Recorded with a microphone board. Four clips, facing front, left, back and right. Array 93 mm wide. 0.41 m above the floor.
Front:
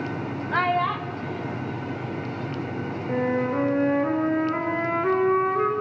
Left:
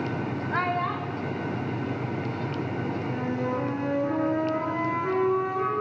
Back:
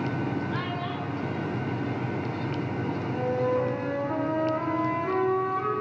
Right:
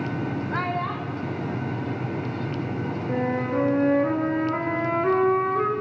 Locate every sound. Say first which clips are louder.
0.5 s a child speaking: left 3 dB, front 8 dB; 10° left, 0.6 m; by 2.9 s 5° right, 1.8 m
3.1 s a flute: right 6 dB, front 3 dB; 40° right, 3.5 m